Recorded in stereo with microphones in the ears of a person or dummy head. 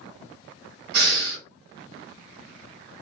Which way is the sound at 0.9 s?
60° right (ahead or behind).